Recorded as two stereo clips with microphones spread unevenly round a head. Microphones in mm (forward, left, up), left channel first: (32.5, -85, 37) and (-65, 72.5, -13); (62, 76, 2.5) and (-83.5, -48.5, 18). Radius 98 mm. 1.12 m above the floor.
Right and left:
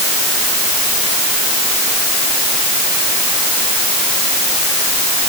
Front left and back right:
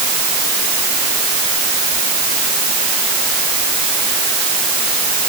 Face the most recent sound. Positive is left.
No sound to turn to.